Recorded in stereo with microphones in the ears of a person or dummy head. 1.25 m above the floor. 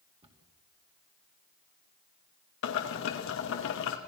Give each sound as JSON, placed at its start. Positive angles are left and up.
{"t": 0.2, "sound": "a cupboard door", "side_deg": -30, "distance_m": 2.5}
{"t": 2.6, "sound": "boiling", "side_deg": 65, "distance_m": 2.0}